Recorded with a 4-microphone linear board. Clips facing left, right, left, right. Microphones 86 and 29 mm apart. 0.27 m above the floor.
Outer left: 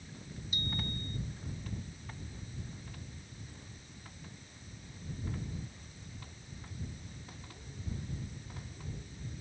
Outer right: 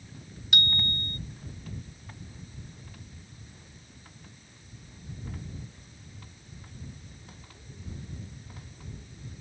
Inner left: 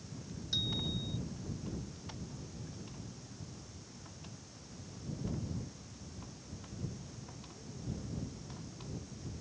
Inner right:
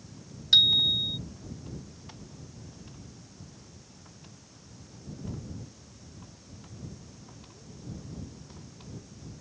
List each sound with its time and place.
0.5 s a bicycle bell: 75° right (ahead or behind)